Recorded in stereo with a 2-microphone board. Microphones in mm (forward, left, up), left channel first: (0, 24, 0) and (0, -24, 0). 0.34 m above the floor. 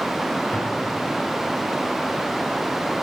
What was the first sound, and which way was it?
An explosion, 20° left (ahead or behind).